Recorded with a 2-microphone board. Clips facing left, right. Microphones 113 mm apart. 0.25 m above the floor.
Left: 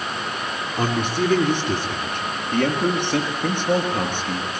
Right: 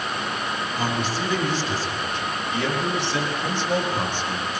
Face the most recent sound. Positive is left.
turn(degrees=60)  # may be behind; listen again after turning